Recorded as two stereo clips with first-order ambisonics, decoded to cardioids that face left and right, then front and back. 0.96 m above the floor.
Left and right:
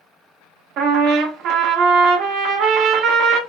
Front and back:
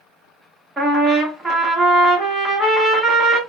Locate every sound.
0.8 s a trumpet: 100° right, 1.2 m